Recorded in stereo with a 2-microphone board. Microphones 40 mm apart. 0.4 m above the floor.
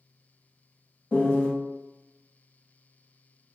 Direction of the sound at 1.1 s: 30° left (ahead or behind).